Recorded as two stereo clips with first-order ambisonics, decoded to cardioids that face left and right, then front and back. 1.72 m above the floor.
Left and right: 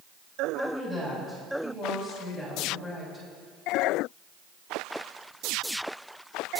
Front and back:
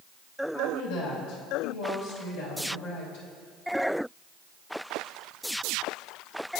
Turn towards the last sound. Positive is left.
turn(degrees=-10)